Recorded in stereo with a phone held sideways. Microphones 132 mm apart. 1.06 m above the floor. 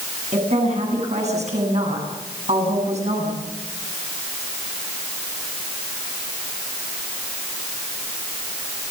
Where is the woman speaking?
60° right (ahead or behind), 9.5 m.